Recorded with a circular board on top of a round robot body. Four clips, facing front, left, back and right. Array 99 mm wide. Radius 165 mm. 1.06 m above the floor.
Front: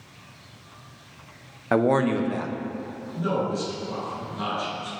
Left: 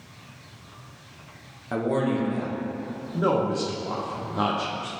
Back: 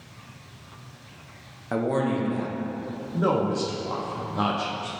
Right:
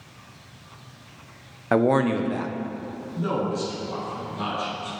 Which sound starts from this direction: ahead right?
A man speaking, at 1.7 s.